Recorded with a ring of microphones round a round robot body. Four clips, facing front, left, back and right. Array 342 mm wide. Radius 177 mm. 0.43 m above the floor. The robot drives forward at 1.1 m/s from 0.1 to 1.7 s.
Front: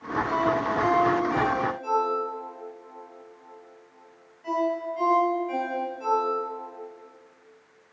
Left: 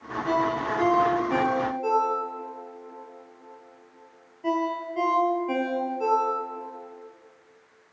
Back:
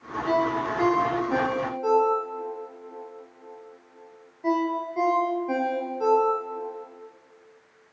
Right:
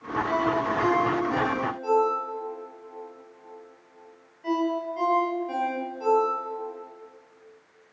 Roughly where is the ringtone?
Behind left.